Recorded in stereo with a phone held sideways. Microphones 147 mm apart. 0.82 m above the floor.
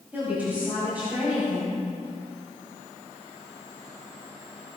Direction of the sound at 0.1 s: 15° right (ahead or behind).